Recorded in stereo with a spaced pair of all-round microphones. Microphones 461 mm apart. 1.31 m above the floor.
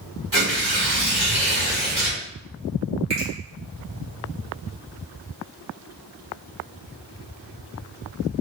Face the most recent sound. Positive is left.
turn(degrees=-65)  # may be behind; listen again after turning